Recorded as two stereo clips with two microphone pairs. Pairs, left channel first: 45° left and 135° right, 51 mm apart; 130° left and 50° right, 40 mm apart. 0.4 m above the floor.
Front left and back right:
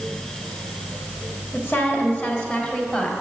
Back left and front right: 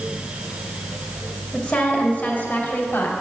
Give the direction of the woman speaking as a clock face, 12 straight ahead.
10 o'clock.